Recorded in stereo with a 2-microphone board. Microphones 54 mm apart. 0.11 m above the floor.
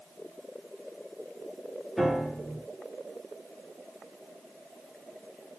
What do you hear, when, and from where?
2.0 s a piano: 5° right (ahead or behind), 1.3 m